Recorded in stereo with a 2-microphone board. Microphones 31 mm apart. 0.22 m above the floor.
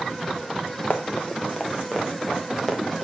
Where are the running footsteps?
45° left (ahead or behind), 1.8 m; by 3.0 s centre (ahead or behind), 3.5 m.